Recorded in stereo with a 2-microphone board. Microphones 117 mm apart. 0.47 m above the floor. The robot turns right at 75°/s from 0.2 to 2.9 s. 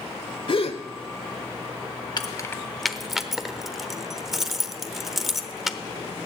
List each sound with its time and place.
0.5 s a gasp: 50° left (ahead or behind), 1.3 m; by 0.8 s 60° left (ahead or behind), 1.3 m
2.2 s keys jangling: 40° left (ahead or behind), 0.9 m; by 5.8 s centre (ahead or behind), 0.9 m